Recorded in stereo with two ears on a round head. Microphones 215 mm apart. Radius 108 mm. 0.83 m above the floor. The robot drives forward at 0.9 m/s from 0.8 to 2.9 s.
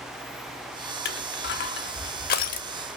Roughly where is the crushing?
Left.